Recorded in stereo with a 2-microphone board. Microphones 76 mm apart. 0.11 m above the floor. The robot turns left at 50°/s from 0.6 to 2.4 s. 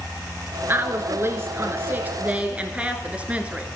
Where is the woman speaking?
65° right, 1.3 m; by 3.7 s 150° right, 1.3 m.